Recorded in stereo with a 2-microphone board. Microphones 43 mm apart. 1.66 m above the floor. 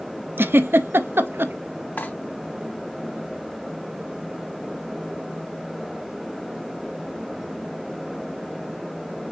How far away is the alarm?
No alarm in this recording.